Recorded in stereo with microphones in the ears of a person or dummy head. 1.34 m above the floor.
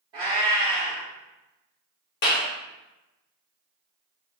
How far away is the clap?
About 0.9 m.